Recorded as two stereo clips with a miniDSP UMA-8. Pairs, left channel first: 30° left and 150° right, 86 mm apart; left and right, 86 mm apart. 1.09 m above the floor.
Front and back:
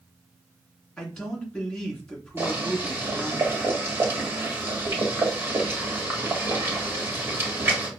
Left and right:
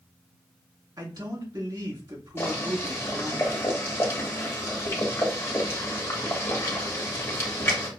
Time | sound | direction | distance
1.0 | a man speaking | 55° right | 3 m
2.4 | boiling | 150° left | 1.6 m